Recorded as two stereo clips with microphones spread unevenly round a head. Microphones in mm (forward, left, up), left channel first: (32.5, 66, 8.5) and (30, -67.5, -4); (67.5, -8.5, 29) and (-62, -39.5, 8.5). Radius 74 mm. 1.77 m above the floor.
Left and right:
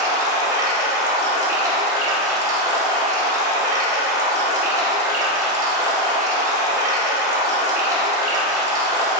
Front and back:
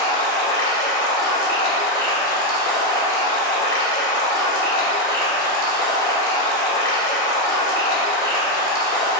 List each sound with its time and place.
0.0 s running water: 30° right, 0.9 m